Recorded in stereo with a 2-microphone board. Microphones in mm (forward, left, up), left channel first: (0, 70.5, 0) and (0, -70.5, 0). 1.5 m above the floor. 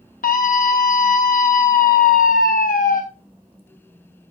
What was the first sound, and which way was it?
A scream, 75° left (ahead or behind).